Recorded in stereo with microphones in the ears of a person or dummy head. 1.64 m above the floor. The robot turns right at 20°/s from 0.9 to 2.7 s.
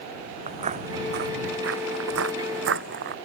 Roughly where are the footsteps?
Right.